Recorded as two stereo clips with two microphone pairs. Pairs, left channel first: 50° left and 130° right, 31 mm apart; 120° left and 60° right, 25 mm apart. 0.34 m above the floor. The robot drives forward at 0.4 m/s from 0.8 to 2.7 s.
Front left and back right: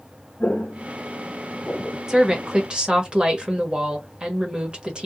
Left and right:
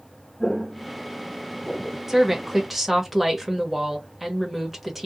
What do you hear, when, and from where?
0.4 s footsteps: 30° left, 0.8 m; by 2.0 s straight ahead, 0.9 m
2.1 s a woman speaking: 110° right, 0.9 m; by 5.0 s 140° right, 1.0 m